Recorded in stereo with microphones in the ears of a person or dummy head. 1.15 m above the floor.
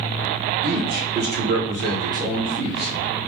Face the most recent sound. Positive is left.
turn(degrees=5)  # may be behind; listen again after turning